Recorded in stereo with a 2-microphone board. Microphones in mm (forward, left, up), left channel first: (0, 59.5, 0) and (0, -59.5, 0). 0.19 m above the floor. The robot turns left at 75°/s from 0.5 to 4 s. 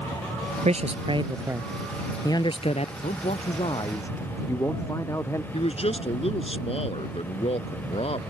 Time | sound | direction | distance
0.7 | a man speaking | 90° right | ?
3.0 | a man speaking | 95° left | ?
5.5 | a man speaking | 60° left (ahead or behind) | ?